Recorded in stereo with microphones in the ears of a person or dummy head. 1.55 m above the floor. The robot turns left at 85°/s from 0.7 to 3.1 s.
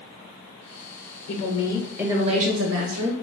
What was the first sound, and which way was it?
A woman speaking, 60° left.